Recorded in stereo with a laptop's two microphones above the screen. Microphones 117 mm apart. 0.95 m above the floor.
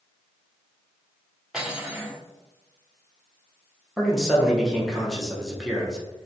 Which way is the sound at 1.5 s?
5° right (ahead or behind).